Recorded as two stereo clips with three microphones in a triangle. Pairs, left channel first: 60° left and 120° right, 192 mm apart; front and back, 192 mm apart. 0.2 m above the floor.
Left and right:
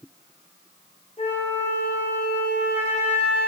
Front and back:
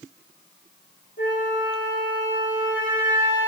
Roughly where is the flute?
Ahead.